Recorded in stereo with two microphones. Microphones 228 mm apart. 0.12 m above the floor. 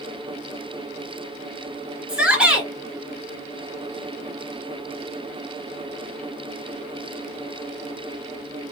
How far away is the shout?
About 1.5 m.